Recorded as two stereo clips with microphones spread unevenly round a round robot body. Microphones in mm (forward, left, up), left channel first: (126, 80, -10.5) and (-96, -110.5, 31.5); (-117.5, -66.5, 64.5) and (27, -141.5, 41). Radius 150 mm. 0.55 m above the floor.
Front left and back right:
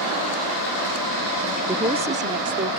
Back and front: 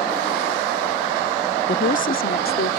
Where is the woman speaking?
140° left; by 2.8 s 160° left.